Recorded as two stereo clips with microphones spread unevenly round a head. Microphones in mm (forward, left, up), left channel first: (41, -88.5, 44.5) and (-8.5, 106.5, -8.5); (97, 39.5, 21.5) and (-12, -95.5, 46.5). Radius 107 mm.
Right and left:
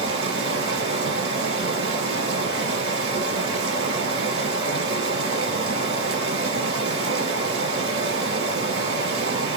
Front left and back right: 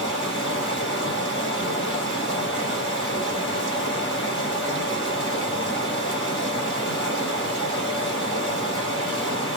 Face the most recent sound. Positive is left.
turn(degrees=130)